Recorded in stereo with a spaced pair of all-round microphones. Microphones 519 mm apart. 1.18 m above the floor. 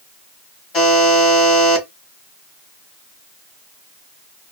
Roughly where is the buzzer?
Left.